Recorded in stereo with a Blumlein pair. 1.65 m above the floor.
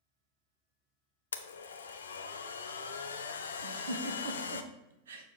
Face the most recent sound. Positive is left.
turn(degrees=-65)